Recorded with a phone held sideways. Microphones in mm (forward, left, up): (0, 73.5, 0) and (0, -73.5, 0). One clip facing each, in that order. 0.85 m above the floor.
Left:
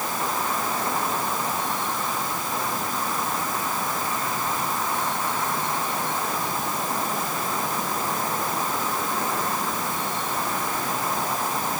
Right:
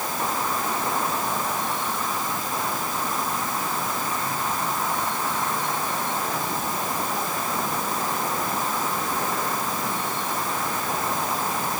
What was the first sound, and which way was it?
Only background noise.